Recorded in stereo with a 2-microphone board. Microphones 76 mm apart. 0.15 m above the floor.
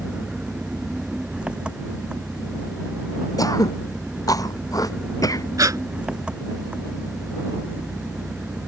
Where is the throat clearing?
55° left (ahead or behind).